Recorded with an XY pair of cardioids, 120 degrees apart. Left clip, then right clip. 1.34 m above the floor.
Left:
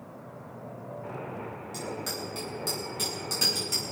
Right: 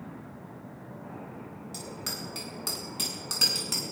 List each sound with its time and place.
1.7 s a bicycle bell: 25° right, 8.5 m